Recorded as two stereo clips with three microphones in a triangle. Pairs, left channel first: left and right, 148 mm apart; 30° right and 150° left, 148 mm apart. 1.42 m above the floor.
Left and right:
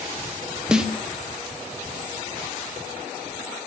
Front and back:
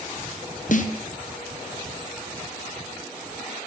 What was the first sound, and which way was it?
A snare drum, 5° right.